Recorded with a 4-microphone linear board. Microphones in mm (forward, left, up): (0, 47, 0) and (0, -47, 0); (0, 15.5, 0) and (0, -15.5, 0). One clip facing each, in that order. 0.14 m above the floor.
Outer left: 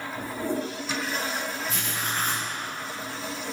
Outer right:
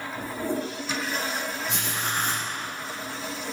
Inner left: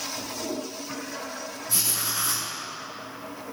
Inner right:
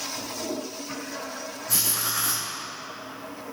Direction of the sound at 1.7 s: 70° right (ahead or behind).